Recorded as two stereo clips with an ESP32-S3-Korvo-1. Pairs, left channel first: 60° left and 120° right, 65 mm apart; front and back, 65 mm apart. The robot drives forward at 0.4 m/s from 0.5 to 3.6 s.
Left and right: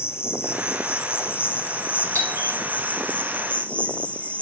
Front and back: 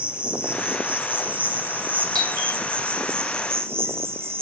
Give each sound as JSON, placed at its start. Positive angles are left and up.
{"t": 0.0, "sound": "an insect", "azimuth_deg": 110, "distance_m": 3.0}
{"t": 2.1, "sound": "a doorbell", "azimuth_deg": -170, "distance_m": 8.0}